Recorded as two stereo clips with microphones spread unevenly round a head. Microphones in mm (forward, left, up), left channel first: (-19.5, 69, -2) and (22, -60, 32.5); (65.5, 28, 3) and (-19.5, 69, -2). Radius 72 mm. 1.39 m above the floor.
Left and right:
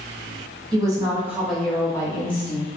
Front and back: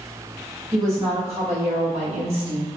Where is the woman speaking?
135° right, 1.0 m; by 2.7 s 145° left, 0.9 m.